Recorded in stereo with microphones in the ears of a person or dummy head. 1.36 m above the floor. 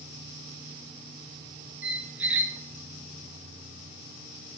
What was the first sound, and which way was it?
A squeak, 10° right (ahead or behind).